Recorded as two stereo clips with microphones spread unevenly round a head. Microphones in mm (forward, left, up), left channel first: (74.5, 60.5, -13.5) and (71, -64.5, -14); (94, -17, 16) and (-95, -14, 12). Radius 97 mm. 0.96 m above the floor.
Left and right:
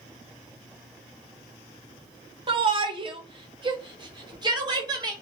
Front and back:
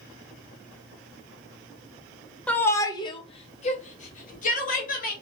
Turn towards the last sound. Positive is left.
turn(degrees=-40)